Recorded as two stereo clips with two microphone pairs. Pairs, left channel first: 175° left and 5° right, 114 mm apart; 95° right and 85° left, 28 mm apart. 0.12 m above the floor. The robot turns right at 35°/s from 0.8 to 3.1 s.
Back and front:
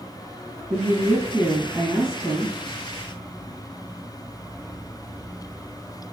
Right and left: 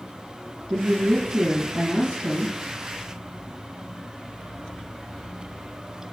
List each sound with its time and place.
0.7 s a woman speaking: 70° left, 2.5 m; by 2.5 s 130° left, 2.5 m